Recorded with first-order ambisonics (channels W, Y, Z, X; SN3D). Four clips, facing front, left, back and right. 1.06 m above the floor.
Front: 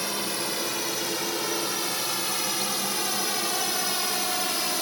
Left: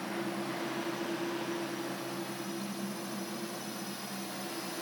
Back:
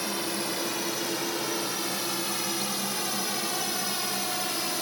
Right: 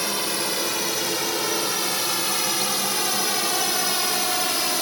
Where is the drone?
80° right; by 4.8 s 75° right.